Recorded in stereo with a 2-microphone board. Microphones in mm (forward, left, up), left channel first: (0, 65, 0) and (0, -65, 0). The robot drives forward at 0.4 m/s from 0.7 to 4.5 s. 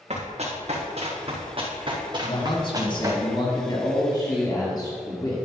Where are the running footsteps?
55° right (ahead or behind), 3 m; by 3.2 s 20° right (ahead or behind), 2 m.